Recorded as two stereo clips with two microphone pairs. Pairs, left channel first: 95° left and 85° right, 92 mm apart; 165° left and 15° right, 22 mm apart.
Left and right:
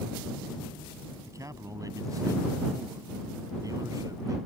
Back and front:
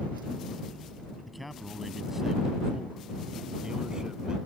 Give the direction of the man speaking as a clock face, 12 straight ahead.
4 o'clock.